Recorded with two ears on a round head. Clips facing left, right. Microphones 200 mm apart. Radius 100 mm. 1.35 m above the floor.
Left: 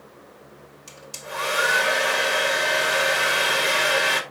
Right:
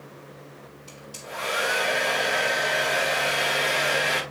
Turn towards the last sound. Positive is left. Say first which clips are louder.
# left 3 dB
turn(degrees=65)  # may be behind; listen again after turning